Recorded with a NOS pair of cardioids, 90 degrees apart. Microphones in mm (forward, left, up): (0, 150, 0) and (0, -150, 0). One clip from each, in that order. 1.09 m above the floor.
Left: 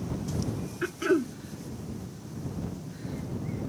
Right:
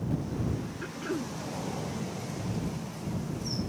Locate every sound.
0.8 s throat clearing: 40° left